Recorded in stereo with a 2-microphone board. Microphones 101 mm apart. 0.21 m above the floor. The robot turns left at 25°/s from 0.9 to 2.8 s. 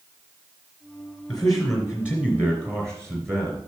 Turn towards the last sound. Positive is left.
turn(degrees=-30)